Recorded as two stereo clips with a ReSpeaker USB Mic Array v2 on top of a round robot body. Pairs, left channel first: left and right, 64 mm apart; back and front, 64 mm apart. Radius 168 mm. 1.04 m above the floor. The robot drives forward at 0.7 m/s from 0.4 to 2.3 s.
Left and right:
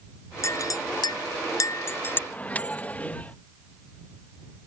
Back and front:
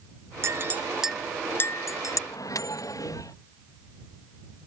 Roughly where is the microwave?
Behind left.